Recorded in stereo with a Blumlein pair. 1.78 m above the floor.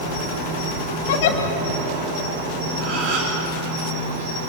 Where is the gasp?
40° right, 4.5 m.